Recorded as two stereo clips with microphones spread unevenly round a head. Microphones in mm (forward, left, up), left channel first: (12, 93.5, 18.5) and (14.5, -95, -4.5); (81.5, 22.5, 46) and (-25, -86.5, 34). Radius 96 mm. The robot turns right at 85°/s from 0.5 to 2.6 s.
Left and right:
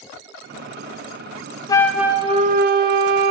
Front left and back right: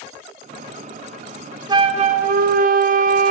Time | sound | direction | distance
1.7 | a flute | 165° left | 0.5 m